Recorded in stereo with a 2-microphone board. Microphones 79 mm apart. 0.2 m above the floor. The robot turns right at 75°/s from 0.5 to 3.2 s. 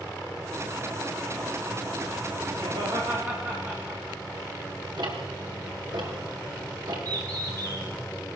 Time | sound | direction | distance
2.6 | laughter | 65° right (ahead or behind) | 9 m
5.0 | ticking | 65° right (ahead or behind) | 4.5 m
7.0 | a bird | 50° right (ahead or behind) | 6 m